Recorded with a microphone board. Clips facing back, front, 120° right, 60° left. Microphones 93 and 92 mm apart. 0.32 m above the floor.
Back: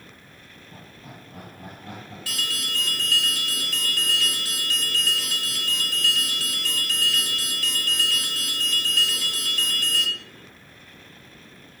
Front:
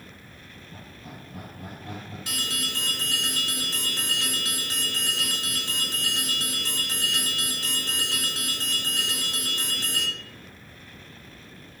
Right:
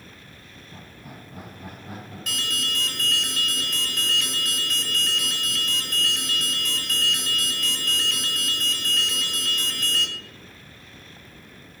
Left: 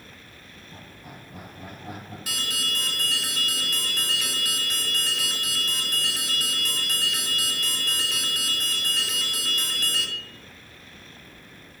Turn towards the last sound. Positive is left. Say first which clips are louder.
# back 1 dB, right 2 dB
turn(degrees=-10)